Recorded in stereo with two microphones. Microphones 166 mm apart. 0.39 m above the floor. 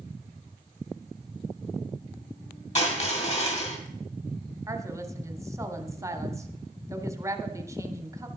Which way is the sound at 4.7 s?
20° right (ahead or behind).